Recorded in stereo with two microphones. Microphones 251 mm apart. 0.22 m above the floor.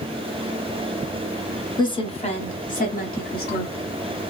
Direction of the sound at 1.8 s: 20° left (ahead or behind).